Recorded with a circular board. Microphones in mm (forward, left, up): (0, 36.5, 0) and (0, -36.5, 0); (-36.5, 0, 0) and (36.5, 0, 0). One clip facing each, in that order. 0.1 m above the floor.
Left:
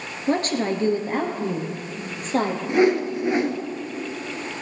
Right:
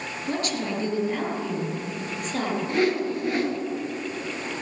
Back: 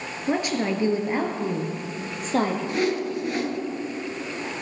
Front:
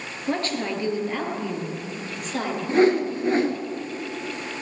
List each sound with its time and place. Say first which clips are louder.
0.3 s a woman speaking: left 6 dB, back 2 dB; 100° left, 1.5 m; by 2.6 s 135° left, 2.5 m
2.7 s a whoosh: left 6 dB, front 6 dB; 30° left, 0.8 m